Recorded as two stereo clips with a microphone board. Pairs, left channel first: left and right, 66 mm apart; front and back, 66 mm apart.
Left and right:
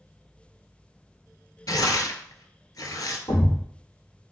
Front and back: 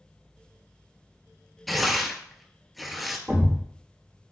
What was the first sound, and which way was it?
Tearing paper, 90° left.